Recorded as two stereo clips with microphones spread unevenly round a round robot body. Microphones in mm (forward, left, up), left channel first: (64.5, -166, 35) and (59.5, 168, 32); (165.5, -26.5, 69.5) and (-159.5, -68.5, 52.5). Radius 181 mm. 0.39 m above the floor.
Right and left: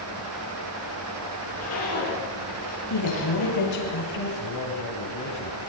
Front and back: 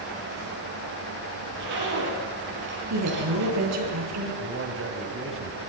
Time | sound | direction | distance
1.4 | a zipper | 145° right | 8.5 m
2.9 | a woman speaking | 135° right | 7.5 m
4.4 | a man speaking | 125° right | 3.5 m